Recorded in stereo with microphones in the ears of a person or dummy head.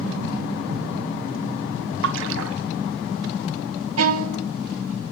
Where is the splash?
70° right (ahead or behind), 1.4 m.